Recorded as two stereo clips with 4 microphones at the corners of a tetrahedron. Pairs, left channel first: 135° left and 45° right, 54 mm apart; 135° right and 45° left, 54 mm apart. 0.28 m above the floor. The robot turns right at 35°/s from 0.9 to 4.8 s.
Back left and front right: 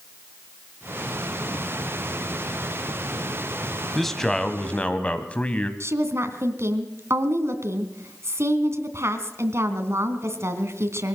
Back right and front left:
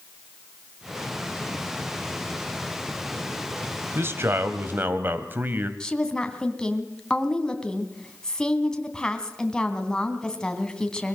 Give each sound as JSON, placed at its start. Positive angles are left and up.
{"t": 4.0, "sound": "a man speaking", "azimuth_deg": 45, "distance_m": 1.9}
{"t": 5.8, "sound": "a woman speaking", "azimuth_deg": -65, "distance_m": 2.5}